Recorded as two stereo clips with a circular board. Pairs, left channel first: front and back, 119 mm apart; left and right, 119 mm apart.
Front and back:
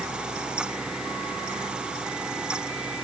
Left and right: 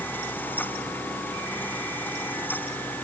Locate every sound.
Only background noise.